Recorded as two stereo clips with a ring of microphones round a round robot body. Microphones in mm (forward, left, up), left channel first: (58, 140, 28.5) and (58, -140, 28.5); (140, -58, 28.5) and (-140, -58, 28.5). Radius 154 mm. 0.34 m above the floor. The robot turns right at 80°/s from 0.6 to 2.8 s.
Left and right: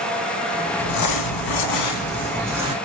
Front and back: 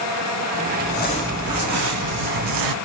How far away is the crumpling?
About 0.6 m.